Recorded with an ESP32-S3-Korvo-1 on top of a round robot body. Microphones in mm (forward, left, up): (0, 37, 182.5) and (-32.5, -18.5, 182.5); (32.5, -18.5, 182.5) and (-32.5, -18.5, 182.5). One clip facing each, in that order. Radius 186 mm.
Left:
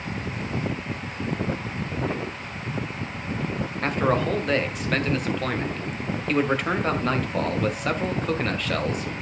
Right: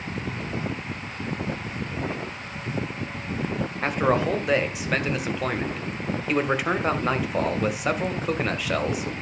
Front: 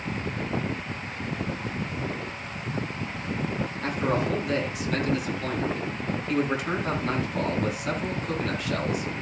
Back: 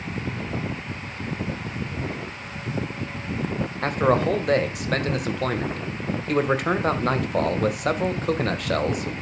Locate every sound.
3.8 s a man speaking: 160° left, 2.5 m